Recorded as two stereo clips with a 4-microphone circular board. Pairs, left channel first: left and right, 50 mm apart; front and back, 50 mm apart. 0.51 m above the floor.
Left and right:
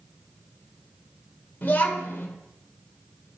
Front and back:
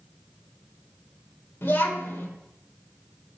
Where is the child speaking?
40° left, 0.9 m.